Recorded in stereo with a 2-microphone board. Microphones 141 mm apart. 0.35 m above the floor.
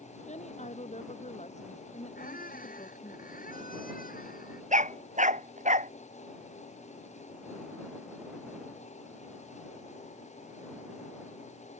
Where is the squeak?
90° left.